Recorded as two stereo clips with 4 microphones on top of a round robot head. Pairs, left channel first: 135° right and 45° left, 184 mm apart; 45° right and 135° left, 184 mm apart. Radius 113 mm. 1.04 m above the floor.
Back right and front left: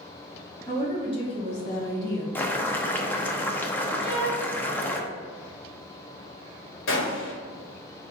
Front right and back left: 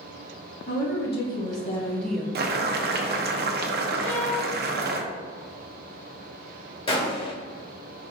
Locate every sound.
0.7 s a woman speaking: 65° right, 1.9 m; by 2.2 s 150° right, 0.9 m
2.4 s boiling: 150° left, 0.7 m
4.0 s a violin: 60° right, 1.4 m
6.9 s a gunshot: 110° right, 1.3 m